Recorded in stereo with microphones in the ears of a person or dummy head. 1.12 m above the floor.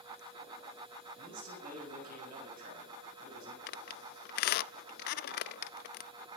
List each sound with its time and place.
1.2 s a man speaking: 45° right (ahead or behind), 7 m
3.7 s a squeak: 60° left (ahead or behind), 0.5 m